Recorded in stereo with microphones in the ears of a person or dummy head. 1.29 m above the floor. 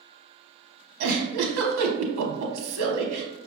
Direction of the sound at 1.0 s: 80° right.